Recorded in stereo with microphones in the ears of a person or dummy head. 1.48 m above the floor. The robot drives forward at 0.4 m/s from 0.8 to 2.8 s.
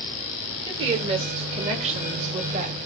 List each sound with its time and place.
0.7 s a woman speaking: 30° right (ahead or behind), 2.5 m; by 2.8 s 45° right (ahead or behind), 1.7 m